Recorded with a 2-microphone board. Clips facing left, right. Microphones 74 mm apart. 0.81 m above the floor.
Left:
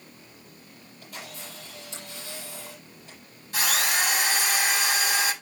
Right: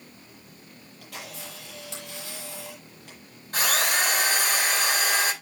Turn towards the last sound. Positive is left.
turn(degrees=-50)  # may be behind; listen again after turning